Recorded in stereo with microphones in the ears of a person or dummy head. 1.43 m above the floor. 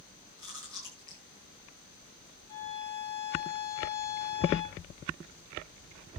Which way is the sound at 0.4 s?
15° right (ahead or behind).